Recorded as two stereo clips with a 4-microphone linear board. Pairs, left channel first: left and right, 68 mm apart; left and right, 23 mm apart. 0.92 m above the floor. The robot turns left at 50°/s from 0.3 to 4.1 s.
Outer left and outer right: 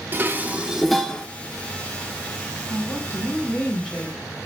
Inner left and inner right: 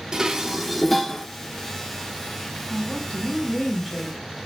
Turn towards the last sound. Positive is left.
turn(degrees=-15)